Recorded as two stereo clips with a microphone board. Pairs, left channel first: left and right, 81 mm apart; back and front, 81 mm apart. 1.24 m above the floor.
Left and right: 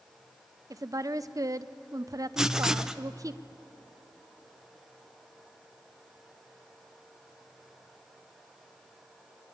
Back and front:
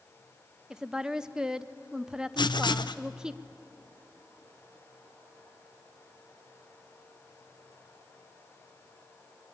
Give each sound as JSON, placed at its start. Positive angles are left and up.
{"t": 0.7, "sound": "a woman speaking", "azimuth_deg": -80, "distance_m": 0.6}
{"t": 2.4, "sound": "writing", "azimuth_deg": -175, "distance_m": 0.7}